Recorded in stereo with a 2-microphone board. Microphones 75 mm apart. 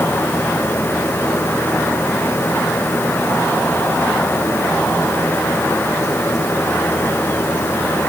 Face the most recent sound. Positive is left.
No sound to turn to.